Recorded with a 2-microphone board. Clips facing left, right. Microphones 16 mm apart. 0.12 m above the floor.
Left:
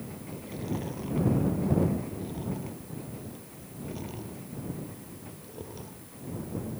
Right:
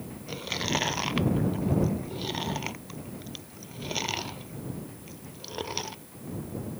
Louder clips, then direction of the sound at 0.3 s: Right 7 dB; 60° right (ahead or behind).